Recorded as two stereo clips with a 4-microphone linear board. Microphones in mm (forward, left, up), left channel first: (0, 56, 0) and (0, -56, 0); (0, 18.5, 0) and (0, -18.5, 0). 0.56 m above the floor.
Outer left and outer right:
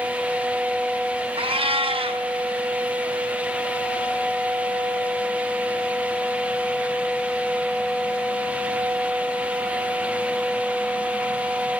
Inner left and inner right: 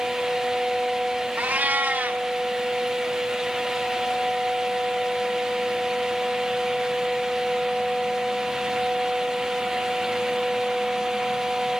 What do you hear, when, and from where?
1.4 s a cat meowing: 55° right (ahead or behind), 0.6 m